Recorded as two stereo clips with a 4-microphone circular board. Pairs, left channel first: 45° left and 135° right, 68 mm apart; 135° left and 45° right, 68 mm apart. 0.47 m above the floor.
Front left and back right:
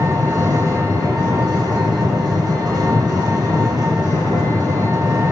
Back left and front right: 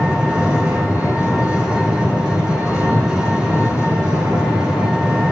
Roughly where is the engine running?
Behind right.